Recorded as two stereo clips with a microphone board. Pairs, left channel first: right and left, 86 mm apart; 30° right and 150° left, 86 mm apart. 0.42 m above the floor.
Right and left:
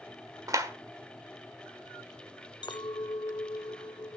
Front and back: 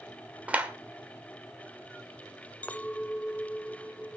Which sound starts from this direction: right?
A clink, at 2.6 s.